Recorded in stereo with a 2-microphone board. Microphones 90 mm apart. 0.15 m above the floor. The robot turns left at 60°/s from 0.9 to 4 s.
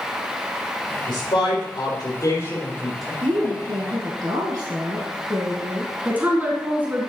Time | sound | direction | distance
1.1 | a man speaking | 115° left | 4.5 m
3.2 | a woman speaking | 75° right | 1.7 m
6.0 | a woman speaking | 20° right (ahead or behind) | 1.4 m